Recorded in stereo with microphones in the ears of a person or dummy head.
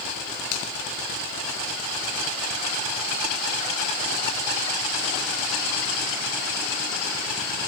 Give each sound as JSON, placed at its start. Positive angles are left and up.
{"t": 0.5, "sound": "a finger snap", "side_deg": 60, "distance_m": 3.5}